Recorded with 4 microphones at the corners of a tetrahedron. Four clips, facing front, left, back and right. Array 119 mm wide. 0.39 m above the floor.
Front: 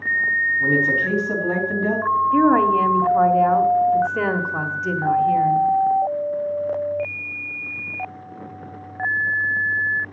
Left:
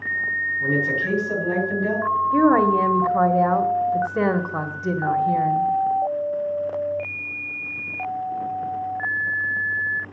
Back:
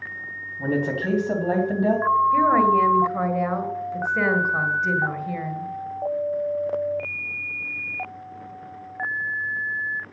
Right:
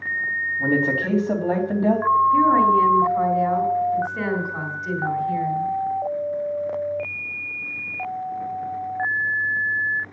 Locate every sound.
0.6 s a woman speaking: 130° right, 3 m
2.3 s a woman speaking: 70° left, 1.3 m